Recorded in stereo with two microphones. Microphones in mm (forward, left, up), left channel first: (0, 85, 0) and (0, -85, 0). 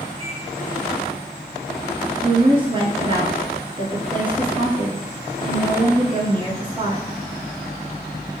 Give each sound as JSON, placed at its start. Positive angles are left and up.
{"t": 0.2, "sound": "a microwave", "side_deg": -35, "distance_m": 1.6}
{"t": 2.2, "sound": "a woman speaking", "side_deg": -30, "distance_m": 1.2}